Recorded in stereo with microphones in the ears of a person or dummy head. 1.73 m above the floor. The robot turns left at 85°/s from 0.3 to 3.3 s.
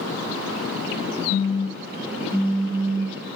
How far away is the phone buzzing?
About 0.5 m.